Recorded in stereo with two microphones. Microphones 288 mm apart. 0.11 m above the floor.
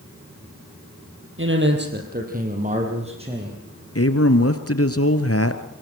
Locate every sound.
1.4 s a man speaking: 40° right (ahead or behind), 4 m; by 3.6 s 15° right (ahead or behind), 6.5 m
4.0 s a man speaking: 50° left (ahead or behind), 2 m